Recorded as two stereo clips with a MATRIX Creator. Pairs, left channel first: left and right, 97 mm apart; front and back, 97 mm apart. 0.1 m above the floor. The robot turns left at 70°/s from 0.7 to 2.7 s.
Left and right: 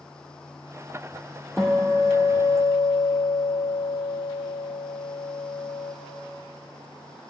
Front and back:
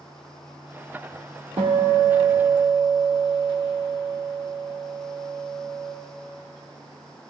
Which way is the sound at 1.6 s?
Straight behind.